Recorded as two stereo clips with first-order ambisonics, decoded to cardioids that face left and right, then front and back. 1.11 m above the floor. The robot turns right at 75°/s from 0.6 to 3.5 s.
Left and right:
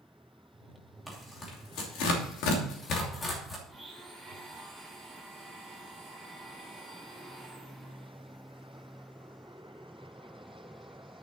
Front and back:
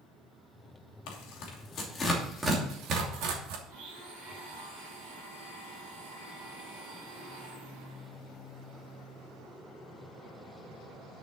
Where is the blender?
170° right, 7.5 m.